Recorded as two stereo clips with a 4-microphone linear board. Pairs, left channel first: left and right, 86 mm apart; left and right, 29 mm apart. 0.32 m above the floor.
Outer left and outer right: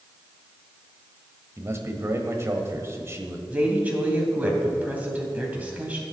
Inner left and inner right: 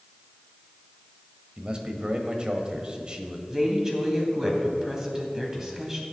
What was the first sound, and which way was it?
A man speaking, 30° right (ahead or behind).